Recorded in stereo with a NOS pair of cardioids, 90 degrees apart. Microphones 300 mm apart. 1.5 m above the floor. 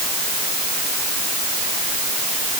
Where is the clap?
I don't hear a clap.